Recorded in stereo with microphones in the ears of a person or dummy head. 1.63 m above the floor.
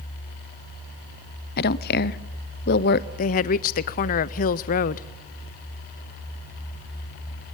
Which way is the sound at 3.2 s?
40° left (ahead or behind).